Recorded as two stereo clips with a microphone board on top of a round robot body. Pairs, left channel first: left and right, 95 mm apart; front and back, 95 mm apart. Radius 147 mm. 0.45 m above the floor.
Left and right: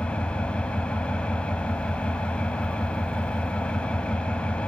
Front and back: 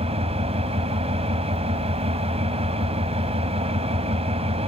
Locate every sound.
0.0 s an engine running: 170° left, 1.5 m